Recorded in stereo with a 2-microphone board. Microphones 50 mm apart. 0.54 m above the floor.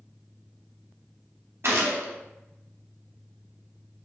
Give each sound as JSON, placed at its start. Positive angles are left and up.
{"t": 1.6, "sound": "a gunshot", "side_deg": -55, "distance_m": 0.6}